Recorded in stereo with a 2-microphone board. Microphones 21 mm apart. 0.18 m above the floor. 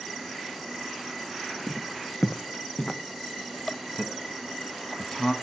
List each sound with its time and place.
1.7 s footsteps: 5° right (ahead or behind), 0.8 m; by 3.0 s 65° left (ahead or behind), 1.5 m
4.0 s a man speaking: 25° left (ahead or behind), 1.3 m